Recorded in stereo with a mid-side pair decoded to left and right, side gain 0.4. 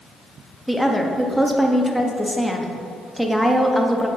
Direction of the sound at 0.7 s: 5° left.